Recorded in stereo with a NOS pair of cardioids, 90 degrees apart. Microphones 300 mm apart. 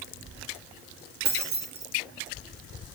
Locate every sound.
1.2 s keys jangling: 35° right, 1.8 m